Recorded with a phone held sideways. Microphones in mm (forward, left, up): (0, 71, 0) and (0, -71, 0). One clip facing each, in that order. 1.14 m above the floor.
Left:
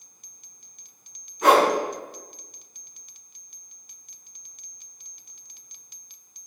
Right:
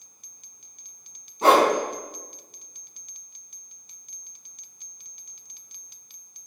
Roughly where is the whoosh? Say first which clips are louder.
Even; right.